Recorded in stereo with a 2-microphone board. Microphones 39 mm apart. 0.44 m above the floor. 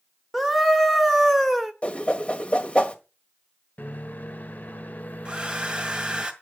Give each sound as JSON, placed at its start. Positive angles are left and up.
{"t": 0.3, "sound": "a scream", "side_deg": 0, "distance_m": 1.4}
{"t": 1.8, "sound": "a whoosh", "side_deg": 30, "distance_m": 1.5}
{"t": 3.8, "sound": "a microwave", "side_deg": 50, "distance_m": 1.0}
{"t": 5.2, "sound": "a hair dryer", "side_deg": -25, "distance_m": 1.7}